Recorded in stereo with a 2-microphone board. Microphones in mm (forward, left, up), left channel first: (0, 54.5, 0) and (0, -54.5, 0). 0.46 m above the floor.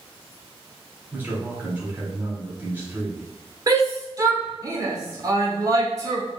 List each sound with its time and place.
1.1 s a man speaking: 20° right (ahead or behind), 1.6 m
3.7 s a shout: 35° right (ahead or behind), 1.4 m